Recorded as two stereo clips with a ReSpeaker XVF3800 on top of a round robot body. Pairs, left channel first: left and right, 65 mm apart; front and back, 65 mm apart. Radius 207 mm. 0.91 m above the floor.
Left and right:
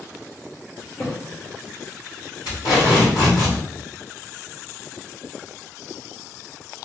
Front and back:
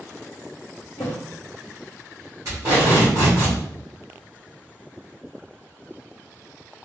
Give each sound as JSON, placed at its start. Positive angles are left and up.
{"t": 1.0, "sound": "a thud", "azimuth_deg": 25, "distance_m": 0.5}
{"t": 2.5, "sound": "tape being pulled", "azimuth_deg": 130, "distance_m": 0.8}